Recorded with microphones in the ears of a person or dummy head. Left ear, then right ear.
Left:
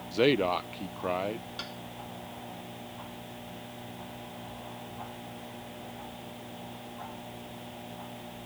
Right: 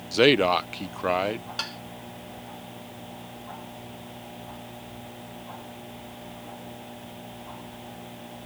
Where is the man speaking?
25° right (ahead or behind).